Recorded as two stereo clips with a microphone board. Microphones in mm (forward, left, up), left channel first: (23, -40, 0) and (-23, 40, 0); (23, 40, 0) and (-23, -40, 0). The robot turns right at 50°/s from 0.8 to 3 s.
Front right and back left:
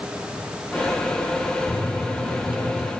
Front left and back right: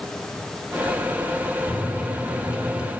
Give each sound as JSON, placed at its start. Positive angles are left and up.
{"t": 1.7, "sound": "a microwave", "azimuth_deg": 135, "distance_m": 1.1}